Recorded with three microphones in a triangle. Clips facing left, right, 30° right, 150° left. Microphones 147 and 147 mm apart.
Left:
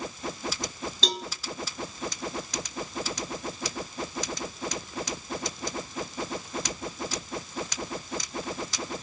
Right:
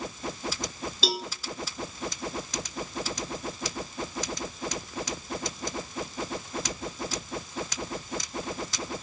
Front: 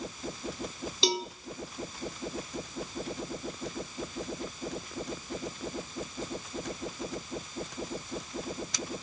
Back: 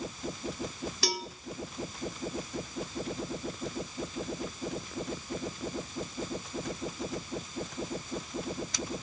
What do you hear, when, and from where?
1.0 s a cowbell: 15° right, 0.8 m